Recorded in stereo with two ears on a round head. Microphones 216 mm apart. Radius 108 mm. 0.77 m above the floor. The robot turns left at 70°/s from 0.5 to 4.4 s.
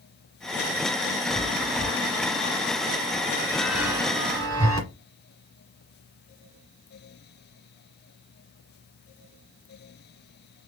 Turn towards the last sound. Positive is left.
turn(degrees=-45)  # may be behind; listen again after turning